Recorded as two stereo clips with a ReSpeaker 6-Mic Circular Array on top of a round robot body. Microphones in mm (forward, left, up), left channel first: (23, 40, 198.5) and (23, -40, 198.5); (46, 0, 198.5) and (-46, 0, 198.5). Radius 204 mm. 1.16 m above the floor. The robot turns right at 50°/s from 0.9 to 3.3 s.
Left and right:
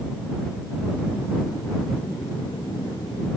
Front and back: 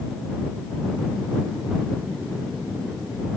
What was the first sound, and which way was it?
Only background noise.